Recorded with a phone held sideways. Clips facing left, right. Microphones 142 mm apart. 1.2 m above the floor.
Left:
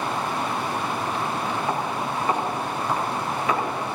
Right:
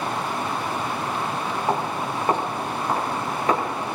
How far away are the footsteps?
About 7.5 m.